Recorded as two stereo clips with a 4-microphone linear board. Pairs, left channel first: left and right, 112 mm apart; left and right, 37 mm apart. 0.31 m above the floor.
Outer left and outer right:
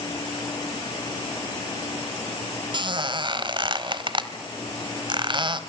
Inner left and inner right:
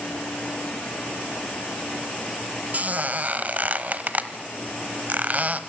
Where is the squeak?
45° right (ahead or behind), 1.2 m.